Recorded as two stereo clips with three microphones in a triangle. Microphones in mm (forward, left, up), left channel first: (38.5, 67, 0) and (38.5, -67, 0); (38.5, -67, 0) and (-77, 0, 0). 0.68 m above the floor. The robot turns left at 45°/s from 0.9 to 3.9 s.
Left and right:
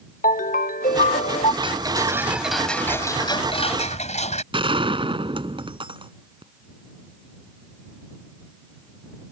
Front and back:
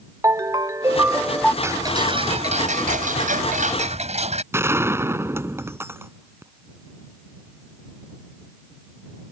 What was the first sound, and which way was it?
A ringtone, 85° left.